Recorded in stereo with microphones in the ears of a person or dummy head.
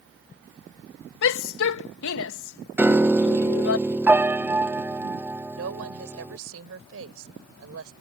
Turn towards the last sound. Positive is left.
turn(degrees=-80)